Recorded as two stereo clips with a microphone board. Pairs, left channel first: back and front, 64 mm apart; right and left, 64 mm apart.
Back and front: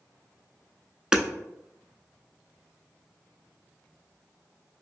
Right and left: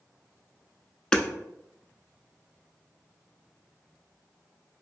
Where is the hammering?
50° right, 0.5 m.